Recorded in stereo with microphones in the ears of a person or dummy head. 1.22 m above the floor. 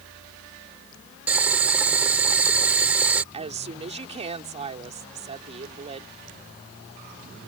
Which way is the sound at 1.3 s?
10° right (ahead or behind).